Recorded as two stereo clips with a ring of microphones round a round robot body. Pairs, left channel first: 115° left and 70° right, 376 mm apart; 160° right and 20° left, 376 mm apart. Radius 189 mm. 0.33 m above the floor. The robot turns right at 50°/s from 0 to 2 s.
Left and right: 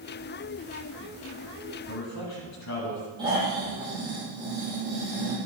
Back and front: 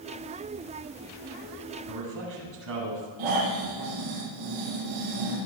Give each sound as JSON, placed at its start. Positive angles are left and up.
{"t": 1.9, "sound": "a man speaking", "azimuth_deg": 55, "distance_m": 9.0}
{"t": 3.2, "sound": "snoring", "azimuth_deg": 10, "distance_m": 8.5}